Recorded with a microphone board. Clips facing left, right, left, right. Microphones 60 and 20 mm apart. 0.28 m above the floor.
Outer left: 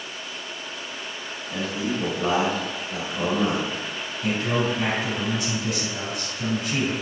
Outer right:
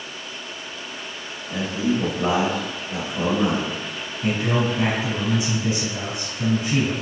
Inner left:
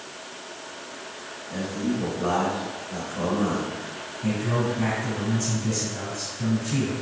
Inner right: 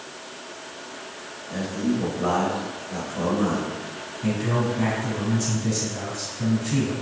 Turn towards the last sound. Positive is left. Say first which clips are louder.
# outer right 2 dB, inner right 1 dB
turn(degrees=-15)  # may be behind; listen again after turning